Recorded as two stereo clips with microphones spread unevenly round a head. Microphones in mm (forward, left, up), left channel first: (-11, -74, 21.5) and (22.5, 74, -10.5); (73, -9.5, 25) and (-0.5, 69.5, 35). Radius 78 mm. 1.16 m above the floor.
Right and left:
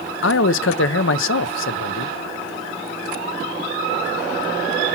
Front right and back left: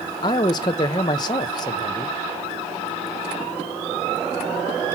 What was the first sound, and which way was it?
A man speaking, 105° right.